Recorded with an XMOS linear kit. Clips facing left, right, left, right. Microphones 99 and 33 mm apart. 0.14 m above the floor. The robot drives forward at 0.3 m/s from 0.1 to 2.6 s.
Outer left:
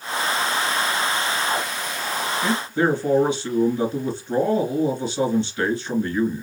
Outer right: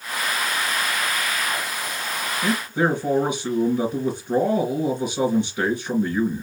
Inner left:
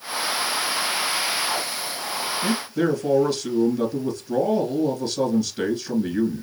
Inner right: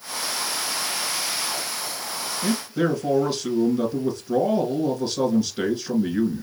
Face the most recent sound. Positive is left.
turn(degrees=-15)  # may be behind; listen again after turning